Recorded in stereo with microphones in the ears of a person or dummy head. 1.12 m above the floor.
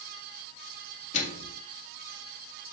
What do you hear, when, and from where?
1.1 s a microwave: 45° left (ahead or behind), 2 m